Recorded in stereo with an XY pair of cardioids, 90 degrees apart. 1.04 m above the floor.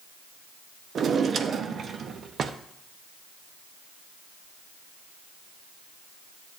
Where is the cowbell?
No cowbell in this recording.